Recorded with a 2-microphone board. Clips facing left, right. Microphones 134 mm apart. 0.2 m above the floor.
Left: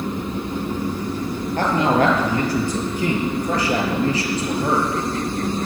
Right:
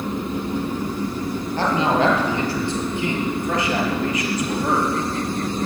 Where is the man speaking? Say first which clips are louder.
Left 1 dB; 50° left (ahead or behind), 5.5 m; by 5.7 s 20° left (ahead or behind), 5 m.